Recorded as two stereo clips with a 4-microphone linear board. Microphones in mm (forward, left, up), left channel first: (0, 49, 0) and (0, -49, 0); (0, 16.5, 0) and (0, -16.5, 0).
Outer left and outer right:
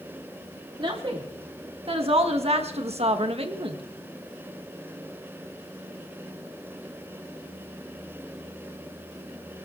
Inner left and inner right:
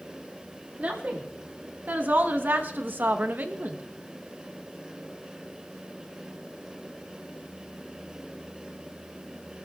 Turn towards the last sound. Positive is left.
turn(degrees=-55)  # may be behind; listen again after turning